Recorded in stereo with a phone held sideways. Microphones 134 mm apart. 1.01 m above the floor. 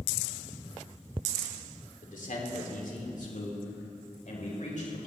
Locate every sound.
2.0 s a man speaking: 75° left (ahead or behind), 3 m; by 5.1 s 70° left (ahead or behind), 4.5 m